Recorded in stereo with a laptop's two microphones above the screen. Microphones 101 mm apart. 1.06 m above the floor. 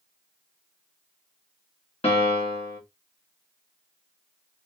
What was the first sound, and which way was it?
A piano, 75° left (ahead or behind).